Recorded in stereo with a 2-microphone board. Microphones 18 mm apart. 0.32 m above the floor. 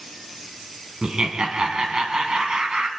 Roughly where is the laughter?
Right.